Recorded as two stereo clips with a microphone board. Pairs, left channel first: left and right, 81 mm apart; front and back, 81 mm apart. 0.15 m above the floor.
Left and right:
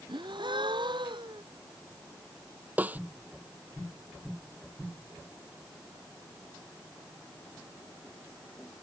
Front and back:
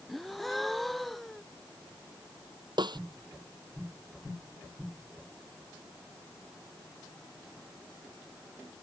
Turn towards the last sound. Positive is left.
turn(degrees=-160)